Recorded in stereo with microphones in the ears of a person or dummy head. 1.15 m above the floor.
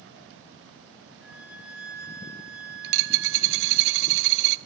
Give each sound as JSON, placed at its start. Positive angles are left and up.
{"t": 1.2, "sound": "a flute", "side_deg": 60, "distance_m": 5.5}
{"t": 2.8, "sound": "a dropped coin", "side_deg": -65, "distance_m": 1.1}